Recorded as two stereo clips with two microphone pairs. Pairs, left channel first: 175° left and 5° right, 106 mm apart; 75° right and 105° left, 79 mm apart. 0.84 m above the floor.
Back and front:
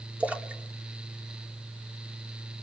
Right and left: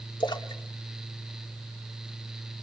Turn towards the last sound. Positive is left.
turn(degrees=-80)